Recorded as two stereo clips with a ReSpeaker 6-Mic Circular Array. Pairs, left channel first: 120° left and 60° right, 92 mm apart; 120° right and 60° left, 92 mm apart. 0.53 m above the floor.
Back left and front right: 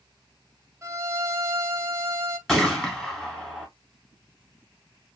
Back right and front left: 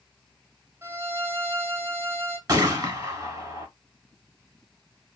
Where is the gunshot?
35° left, 1.7 m.